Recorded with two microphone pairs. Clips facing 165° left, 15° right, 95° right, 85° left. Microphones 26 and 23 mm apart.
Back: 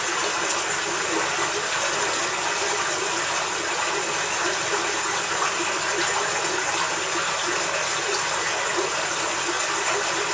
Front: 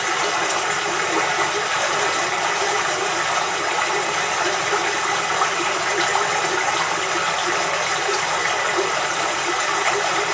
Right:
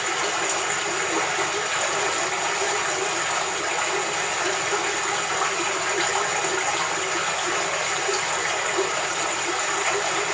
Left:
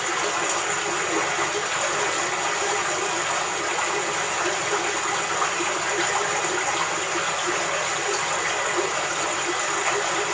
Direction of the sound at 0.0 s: 15° right.